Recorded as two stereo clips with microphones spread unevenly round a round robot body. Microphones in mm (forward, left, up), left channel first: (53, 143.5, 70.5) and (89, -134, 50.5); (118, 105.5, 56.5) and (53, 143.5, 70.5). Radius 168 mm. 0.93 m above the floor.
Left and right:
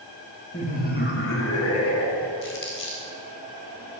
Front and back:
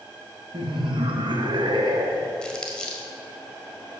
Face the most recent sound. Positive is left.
turn(degrees=50)